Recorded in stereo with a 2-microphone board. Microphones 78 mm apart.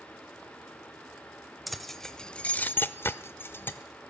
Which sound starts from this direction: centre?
Keys jangling, at 1.7 s.